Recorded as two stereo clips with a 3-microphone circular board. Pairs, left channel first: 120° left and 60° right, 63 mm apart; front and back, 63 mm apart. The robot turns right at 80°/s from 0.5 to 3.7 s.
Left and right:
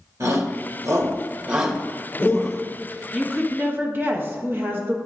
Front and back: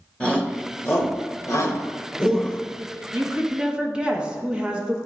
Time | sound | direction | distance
0.2 | a shout | 70° right | 1.2 m
3.1 | a woman speaking | 150° right | 1.2 m